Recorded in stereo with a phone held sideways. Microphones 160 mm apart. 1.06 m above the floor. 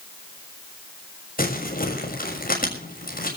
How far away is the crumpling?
About 6.5 m.